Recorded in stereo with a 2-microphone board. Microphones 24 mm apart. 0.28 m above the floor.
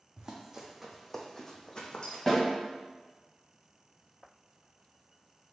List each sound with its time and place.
0.2 s running footsteps: 30° right (ahead or behind), 0.8 m; by 2.2 s 45° left (ahead or behind), 0.9 m
2.3 s a snare drum: 10° left (ahead or behind), 1.9 m